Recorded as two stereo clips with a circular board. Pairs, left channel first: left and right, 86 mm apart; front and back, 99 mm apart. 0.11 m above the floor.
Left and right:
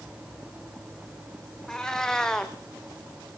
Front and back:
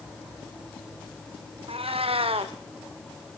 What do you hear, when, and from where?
1.7 s a cat meowing: 170° left, 1.6 m